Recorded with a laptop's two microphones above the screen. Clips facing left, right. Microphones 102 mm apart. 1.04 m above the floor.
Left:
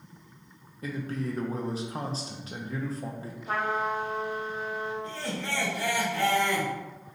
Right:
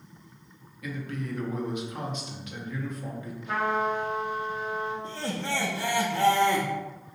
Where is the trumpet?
35° left (ahead or behind), 1.4 m.